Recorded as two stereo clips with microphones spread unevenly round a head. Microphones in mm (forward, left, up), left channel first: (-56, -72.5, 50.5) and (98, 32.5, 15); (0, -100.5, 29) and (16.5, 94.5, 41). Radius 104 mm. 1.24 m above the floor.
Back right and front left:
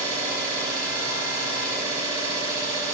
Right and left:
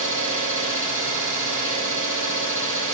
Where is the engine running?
115° left, 1.0 m.